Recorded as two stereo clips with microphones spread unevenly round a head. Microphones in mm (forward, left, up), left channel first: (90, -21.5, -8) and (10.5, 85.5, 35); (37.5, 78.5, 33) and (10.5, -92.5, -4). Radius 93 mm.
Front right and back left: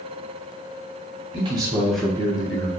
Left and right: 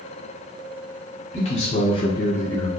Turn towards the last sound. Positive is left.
turn(degrees=5)